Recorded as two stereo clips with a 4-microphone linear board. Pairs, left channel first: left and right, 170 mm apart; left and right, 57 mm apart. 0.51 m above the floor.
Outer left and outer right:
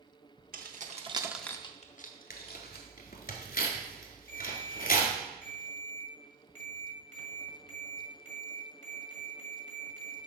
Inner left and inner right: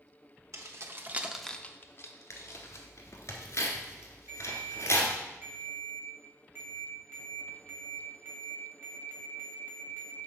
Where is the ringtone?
45° right (ahead or behind), 1.9 m.